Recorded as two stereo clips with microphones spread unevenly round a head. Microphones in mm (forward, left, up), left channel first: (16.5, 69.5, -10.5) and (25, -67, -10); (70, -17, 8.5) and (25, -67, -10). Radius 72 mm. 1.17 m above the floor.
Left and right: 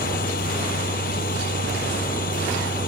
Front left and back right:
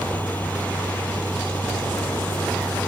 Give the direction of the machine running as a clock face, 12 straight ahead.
8 o'clock.